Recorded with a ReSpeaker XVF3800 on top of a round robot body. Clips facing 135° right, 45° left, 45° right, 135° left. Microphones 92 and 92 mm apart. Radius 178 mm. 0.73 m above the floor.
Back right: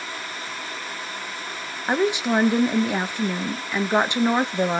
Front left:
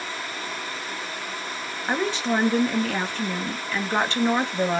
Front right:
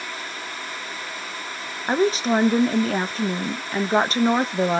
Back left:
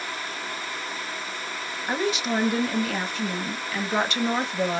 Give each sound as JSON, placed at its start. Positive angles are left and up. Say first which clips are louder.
{"t": 1.9, "sound": "a woman speaking", "louder": "back right 3 dB, front right 6 dB", "azimuth_deg": -70, "distance_m": 0.8}